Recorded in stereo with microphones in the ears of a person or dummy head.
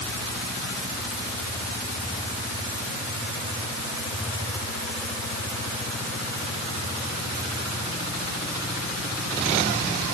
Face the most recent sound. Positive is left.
No sound to turn to.